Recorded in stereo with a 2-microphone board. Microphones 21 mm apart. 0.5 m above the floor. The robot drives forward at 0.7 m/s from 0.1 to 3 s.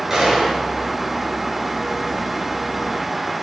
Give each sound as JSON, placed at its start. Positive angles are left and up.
{"t": 0.1, "sound": "a gunshot", "side_deg": -20, "distance_m": 7.0}